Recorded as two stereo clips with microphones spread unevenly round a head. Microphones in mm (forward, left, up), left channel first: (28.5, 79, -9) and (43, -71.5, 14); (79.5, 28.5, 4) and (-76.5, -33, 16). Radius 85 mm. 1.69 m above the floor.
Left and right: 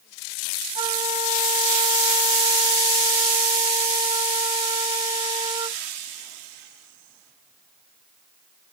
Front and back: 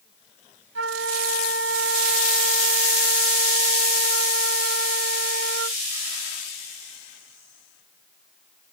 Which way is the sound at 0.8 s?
150° right.